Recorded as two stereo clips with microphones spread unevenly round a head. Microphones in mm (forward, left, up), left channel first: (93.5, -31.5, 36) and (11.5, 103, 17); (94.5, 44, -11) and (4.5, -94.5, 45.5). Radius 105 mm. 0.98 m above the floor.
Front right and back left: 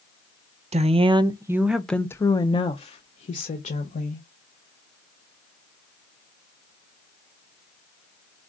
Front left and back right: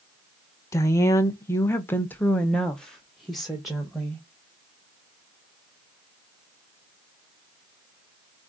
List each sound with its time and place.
0.7 s a woman speaking: 105° left, 0.9 m; by 4.2 s 25° right, 1.5 m